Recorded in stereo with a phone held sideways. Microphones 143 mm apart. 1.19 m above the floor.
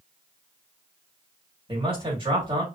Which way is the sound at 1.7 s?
35° right (ahead or behind).